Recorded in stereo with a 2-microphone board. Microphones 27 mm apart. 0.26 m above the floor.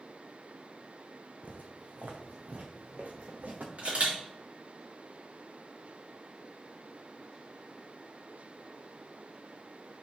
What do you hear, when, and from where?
1.4 s footsteps: 65° right (ahead or behind), 1.2 m; by 3.7 s 85° right, 2.5 m
3.8 s a camera shutter: 55° right (ahead or behind), 3.5 m